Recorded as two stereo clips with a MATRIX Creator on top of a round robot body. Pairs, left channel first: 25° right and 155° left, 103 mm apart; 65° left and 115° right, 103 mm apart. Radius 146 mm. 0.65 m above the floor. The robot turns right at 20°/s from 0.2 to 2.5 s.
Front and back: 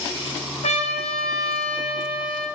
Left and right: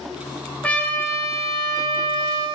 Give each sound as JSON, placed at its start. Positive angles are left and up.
{"t": 0.6, "sound": "a trumpet", "azimuth_deg": -10, "distance_m": 1.3}